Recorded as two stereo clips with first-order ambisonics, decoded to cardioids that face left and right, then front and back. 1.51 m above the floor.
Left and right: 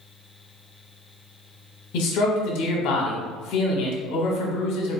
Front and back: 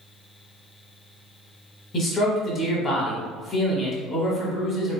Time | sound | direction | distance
1.9 | a man speaking | 65° left | 1.0 m